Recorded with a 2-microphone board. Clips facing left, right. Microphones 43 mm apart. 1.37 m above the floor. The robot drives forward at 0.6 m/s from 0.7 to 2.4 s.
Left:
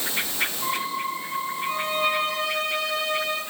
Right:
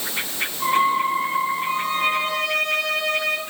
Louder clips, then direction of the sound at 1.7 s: Right 3 dB; 60° right (ahead or behind).